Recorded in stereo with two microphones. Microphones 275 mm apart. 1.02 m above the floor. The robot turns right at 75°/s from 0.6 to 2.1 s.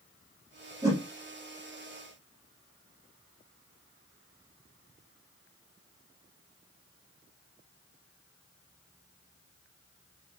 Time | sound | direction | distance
0.8 | a whoosh | 15° right (ahead or behind) | 1.3 m